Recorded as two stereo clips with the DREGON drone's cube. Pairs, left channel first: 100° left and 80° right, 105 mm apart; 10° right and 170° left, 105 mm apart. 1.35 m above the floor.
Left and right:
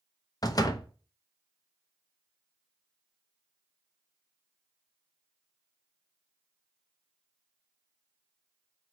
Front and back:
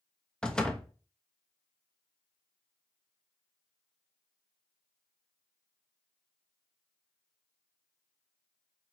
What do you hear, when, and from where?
0.4 s a door slam: 65° left, 0.6 m